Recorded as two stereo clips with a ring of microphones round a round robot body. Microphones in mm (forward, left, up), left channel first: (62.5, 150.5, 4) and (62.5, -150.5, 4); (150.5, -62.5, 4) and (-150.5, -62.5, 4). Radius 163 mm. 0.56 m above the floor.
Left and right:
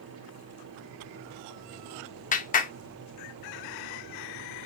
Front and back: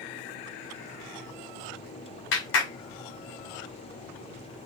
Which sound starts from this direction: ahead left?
A clap, at 2.3 s.